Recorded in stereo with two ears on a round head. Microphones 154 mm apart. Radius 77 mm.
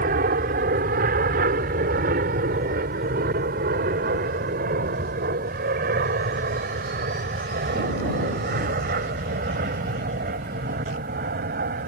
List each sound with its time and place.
0.0 s an aircraft: 55° right (ahead or behind)